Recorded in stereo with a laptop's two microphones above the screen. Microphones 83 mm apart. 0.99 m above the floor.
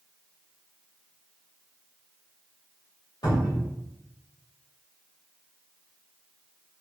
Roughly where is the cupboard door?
Left.